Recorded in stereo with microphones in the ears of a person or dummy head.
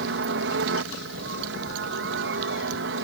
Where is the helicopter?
60° right (ahead or behind).